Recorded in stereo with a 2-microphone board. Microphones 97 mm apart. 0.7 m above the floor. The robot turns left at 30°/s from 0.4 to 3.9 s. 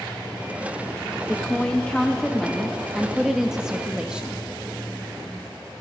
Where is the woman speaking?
15° left (ahead or behind), 0.6 m; by 4.4 s 10° right (ahead or behind), 0.6 m.